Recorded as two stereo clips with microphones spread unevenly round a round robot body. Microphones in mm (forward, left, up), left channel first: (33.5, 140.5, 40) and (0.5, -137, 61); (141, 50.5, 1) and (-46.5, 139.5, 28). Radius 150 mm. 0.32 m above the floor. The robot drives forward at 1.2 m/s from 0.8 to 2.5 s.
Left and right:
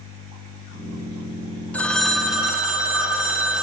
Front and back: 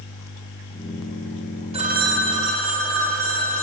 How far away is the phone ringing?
About 0.7 m.